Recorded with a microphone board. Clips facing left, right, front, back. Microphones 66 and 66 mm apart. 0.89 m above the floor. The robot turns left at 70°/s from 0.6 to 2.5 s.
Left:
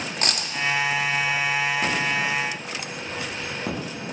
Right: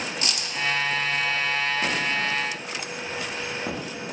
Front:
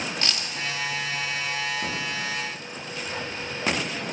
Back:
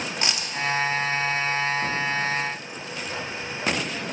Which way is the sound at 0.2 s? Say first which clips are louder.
Left 3 dB, back 1 dB; 110° left.